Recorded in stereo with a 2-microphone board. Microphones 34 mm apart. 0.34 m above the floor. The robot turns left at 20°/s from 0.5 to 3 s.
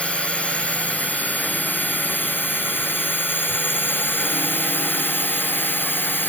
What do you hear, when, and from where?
0.0 s a drone: 145° left; by 6.3 s 95° left